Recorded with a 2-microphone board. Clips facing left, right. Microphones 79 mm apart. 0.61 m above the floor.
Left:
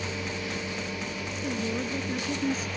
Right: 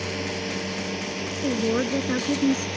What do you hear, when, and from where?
0.0 s a drone: 80° right; by 2.8 s 85° right
1.4 s a woman speaking: 65° right (ahead or behind)